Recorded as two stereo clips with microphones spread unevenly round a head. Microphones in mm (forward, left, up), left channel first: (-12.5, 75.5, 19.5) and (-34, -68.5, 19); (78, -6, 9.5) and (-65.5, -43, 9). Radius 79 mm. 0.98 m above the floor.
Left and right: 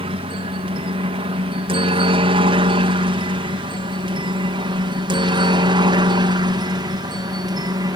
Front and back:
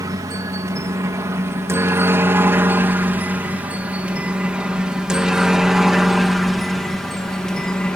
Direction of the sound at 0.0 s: 115° right.